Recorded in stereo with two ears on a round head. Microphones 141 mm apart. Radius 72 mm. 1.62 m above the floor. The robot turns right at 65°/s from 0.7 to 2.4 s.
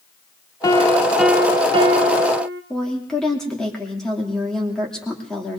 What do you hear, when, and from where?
0.6 s a piano: 155° left, 0.8 m; by 2.6 s 95° right, 0.8 m
2.7 s a woman speaking: 5° left (ahead or behind), 2.5 m